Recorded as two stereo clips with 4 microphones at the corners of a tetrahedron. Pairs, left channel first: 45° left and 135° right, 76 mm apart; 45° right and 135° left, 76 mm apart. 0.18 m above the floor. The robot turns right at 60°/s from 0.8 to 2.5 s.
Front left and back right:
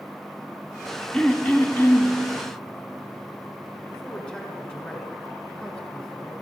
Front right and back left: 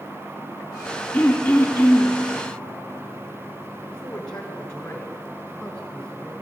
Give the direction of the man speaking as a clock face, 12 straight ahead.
12 o'clock.